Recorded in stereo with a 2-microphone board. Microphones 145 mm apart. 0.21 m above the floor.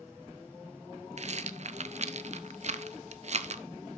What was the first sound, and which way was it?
A rattle, 50° right (ahead or behind).